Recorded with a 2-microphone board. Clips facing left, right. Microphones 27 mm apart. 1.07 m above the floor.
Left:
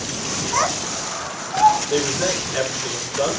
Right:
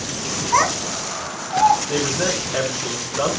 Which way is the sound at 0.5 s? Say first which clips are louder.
Right 4 dB; 50° right (ahead or behind).